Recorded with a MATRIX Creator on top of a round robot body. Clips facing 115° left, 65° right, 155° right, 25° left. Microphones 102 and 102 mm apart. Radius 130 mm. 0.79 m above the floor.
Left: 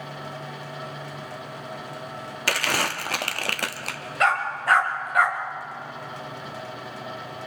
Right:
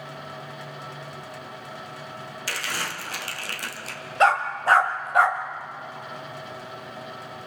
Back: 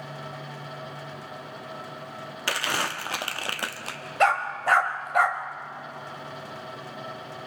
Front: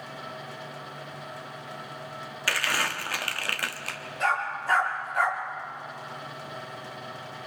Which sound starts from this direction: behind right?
A dog barking, at 4.2 s.